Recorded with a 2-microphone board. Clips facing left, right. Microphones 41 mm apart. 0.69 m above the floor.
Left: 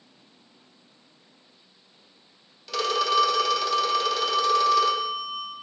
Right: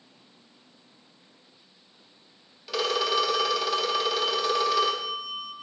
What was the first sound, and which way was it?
A phone ringing, 5° right (ahead or behind).